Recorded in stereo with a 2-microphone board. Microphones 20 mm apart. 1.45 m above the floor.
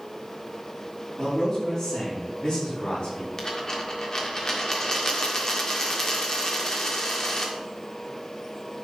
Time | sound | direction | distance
1.2 | a man speaking | 30° left (ahead or behind) | 4 m
3.4 | a dropped coin | 30° left (ahead or behind) | 1.7 m